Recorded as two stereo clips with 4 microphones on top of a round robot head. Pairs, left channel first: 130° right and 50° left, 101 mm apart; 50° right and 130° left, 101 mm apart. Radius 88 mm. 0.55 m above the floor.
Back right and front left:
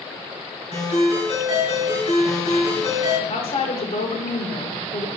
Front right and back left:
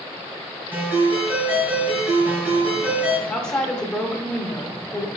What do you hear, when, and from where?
0.7 s a ringtone: 160° right, 4 m
3.3 s a woman speaking: 130° right, 1.6 m